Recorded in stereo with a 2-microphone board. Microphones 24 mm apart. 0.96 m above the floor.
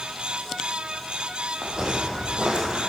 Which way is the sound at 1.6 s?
45° right (ahead or behind).